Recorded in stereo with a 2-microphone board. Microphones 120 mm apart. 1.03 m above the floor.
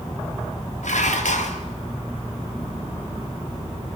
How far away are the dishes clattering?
About 1.7 m.